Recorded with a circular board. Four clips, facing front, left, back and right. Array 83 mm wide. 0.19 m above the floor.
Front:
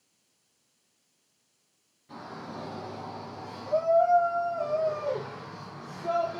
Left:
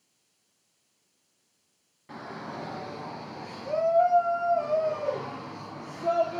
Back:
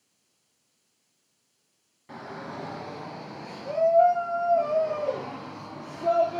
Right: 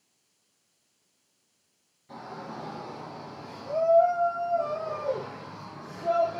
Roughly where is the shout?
Behind left.